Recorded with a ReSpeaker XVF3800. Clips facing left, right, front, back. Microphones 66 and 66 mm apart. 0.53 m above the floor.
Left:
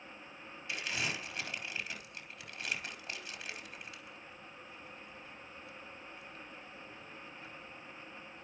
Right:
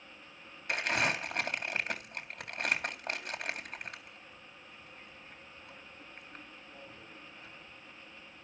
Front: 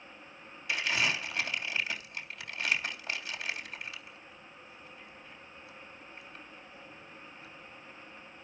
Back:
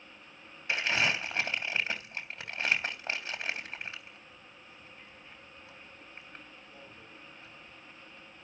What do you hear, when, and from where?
0.7 s crumpling: 125° right, 3.5 m